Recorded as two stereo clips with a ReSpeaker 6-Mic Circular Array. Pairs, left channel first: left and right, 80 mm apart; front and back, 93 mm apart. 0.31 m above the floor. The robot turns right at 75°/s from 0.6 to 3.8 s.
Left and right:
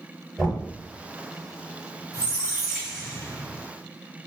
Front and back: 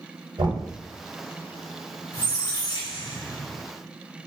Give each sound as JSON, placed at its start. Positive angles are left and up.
{"t": 0.4, "sound": "knocking", "azimuth_deg": -170, "distance_m": 1.3}
{"t": 2.1, "sound": "a squeak", "azimuth_deg": -50, "distance_m": 1.5}